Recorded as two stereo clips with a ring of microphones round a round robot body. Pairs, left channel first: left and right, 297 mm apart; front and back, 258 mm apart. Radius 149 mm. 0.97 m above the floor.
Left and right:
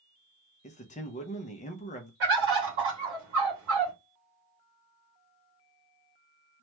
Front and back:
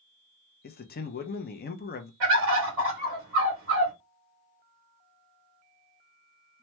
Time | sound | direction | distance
0.6 | a man speaking | 35° left | 0.6 m
2.2 | a bird | 135° right | 1.6 m